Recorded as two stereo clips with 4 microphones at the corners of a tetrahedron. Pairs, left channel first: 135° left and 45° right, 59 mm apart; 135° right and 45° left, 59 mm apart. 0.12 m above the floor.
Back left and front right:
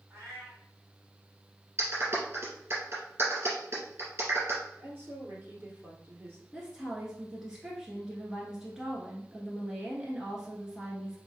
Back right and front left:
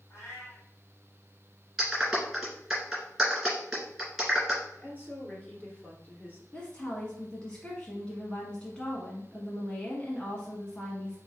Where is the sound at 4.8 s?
80° right, 2.0 m.